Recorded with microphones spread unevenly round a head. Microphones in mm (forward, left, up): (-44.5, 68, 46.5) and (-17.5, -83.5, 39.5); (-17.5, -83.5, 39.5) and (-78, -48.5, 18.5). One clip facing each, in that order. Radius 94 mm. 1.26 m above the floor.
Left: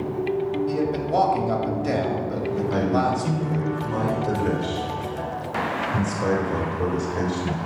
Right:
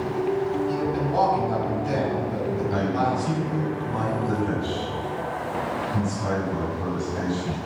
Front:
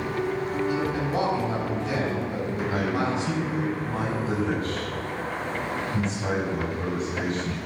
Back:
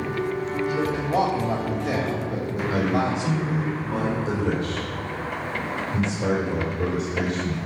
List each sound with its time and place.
0.7 s a man speaking: 115° left, 3 m
2.7 s a man speaking: 125° left, 4.5 m